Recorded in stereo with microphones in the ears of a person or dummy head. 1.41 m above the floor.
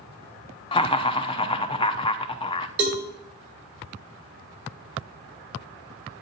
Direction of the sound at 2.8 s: 65° right (ahead or behind).